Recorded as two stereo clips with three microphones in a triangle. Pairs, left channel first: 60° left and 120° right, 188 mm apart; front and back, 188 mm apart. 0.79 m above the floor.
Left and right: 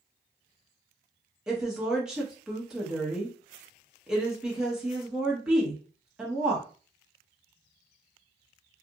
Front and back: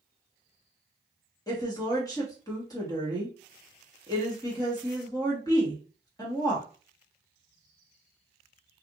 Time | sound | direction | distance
1.5 | a woman speaking | 40° right | 1.0 m